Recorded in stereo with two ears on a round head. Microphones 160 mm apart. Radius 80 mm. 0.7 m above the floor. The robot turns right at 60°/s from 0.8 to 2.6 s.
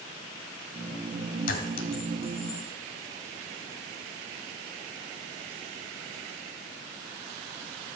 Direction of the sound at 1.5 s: 75° left (ahead or behind).